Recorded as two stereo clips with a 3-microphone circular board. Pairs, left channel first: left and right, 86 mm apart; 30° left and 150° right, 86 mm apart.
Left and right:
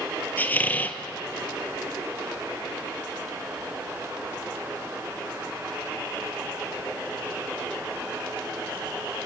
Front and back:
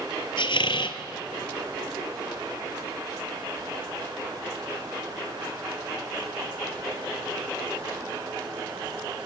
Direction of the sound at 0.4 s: 20° left.